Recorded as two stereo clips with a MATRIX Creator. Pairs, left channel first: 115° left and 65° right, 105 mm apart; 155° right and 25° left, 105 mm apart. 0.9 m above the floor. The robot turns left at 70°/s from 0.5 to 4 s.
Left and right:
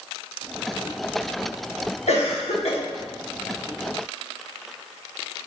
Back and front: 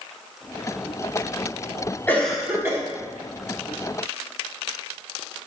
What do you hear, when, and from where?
2.1 s a cough: 130° left, 1.6 m; by 2.8 s 80° left, 1.6 m